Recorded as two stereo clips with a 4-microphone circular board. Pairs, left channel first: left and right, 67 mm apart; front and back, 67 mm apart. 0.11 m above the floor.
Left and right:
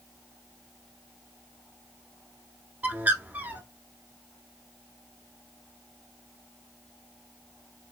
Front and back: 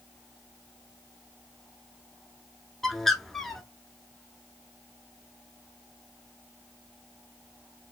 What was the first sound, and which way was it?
A bird, 80° right.